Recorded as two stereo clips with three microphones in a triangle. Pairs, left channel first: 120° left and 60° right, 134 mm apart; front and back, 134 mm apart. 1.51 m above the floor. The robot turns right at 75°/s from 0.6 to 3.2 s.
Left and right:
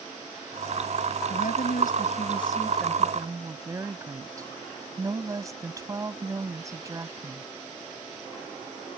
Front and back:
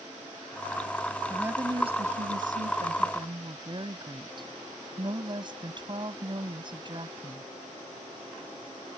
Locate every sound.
1.3 s a woman speaking: 90° left; by 7.5 s 125° right